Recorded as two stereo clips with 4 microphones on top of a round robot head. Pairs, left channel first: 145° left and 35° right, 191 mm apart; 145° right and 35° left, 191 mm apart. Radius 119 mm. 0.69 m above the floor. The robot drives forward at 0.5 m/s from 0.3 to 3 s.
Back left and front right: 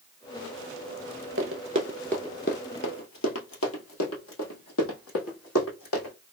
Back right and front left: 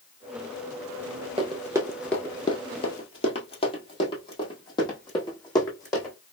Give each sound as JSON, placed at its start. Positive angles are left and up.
{"t": 1.4, "sound": "running footsteps", "azimuth_deg": -25, "distance_m": 0.9}